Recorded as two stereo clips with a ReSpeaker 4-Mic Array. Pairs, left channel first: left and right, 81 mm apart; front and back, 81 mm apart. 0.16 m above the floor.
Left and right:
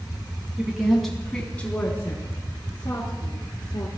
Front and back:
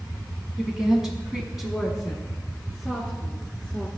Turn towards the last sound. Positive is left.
turn(degrees=85)